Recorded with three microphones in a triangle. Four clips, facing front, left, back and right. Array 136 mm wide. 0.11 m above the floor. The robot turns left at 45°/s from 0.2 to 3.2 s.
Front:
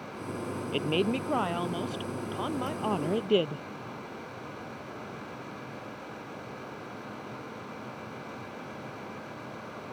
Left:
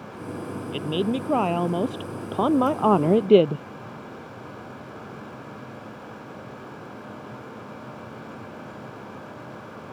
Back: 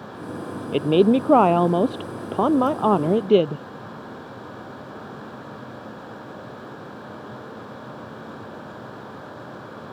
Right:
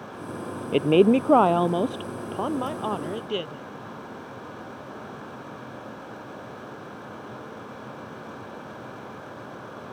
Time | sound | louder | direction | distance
0.7 | a woman speaking | right 9 dB, back 12 dB | 125° right | ?